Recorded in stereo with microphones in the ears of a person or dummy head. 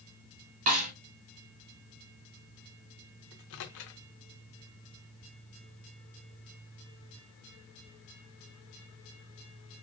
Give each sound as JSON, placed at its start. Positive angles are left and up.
{"t": 0.7, "sound": "a snare drum", "side_deg": -40, "distance_m": 1.1}
{"t": 3.3, "sound": "a microwave", "side_deg": 55, "distance_m": 0.5}